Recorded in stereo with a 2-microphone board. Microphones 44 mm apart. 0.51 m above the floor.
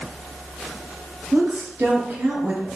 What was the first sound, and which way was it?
A woman speaking, 45° right (ahead or behind).